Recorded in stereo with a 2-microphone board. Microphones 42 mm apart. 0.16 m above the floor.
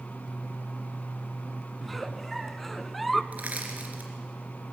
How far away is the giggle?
About 0.6 m.